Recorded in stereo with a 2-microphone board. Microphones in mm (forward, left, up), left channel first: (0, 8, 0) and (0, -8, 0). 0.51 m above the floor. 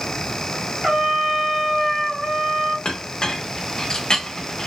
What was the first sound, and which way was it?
A trumpet, 50° right (ahead or behind).